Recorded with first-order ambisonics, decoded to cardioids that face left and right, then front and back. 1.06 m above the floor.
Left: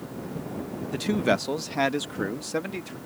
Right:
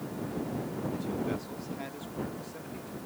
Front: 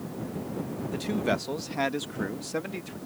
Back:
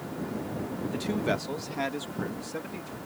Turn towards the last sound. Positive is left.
turn(degrees=70)